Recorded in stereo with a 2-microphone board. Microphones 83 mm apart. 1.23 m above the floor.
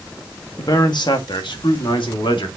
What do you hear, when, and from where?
0.6 s a man speaking: 55° left (ahead or behind), 1.7 m; by 2.5 s 85° left, 2.5 m